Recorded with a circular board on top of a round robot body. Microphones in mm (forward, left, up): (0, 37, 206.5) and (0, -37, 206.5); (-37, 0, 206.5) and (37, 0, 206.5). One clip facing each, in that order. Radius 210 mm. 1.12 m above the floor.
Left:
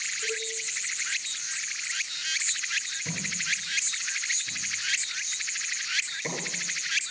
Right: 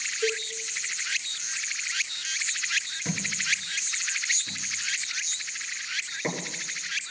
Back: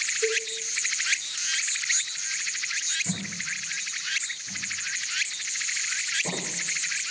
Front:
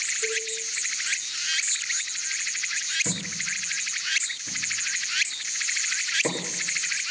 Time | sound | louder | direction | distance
0.2 | a cowbell | right 7 dB, back 4 dB | 125° right | 5 m
3.0 | a thud | right 4 dB, front 1 dB | 35° right | 7 m